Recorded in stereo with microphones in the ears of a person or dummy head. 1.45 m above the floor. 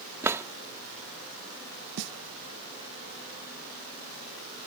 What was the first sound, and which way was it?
A drawer, 15° right (ahead or behind).